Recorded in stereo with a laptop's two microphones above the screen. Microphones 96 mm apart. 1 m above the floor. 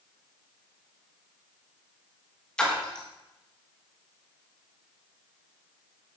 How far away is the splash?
About 1.4 m.